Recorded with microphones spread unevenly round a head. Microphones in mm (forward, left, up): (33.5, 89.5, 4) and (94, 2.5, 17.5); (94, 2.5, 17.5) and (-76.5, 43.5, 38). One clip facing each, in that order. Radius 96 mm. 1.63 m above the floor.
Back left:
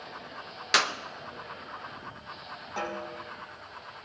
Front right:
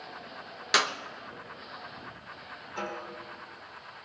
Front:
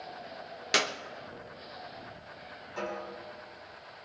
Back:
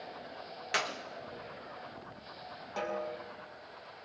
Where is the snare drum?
175° left, 4.5 m.